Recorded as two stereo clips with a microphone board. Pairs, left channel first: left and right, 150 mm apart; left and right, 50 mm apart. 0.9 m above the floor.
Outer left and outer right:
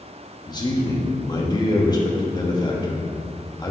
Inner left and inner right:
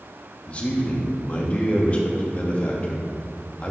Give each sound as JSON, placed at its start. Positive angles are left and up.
{"t": 0.5, "sound": "a man speaking", "side_deg": 30, "distance_m": 1.1}